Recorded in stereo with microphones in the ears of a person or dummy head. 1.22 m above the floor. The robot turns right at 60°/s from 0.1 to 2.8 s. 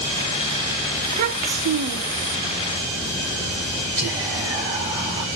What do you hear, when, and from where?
1.0 s a child speaking: 145° right, 0.5 m; by 2.4 s 65° right, 0.5 m
4.0 s whispering: 25° right (ahead or behind), 2 m